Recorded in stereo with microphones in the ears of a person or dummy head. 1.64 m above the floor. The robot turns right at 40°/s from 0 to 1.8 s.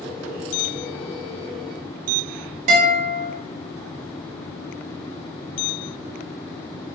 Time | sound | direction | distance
2.7 | a guitar | 55° right (ahead or behind) | 2.5 m